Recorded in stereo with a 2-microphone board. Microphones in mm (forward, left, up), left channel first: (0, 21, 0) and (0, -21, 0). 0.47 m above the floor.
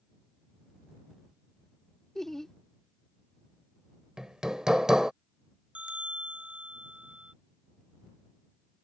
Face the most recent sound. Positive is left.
turn(degrees=-30)  # may be behind; listen again after turning